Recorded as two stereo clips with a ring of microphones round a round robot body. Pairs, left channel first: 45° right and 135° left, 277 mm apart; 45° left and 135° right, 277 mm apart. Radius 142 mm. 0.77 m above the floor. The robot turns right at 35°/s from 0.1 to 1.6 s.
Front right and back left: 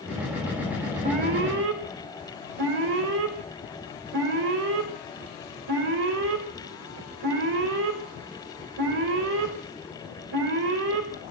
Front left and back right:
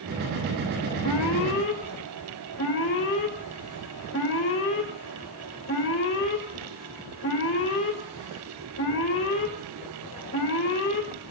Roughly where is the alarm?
Left.